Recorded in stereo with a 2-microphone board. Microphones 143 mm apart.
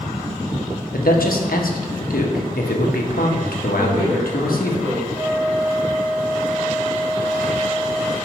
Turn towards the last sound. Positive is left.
turn(degrees=-25)  # may be behind; listen again after turning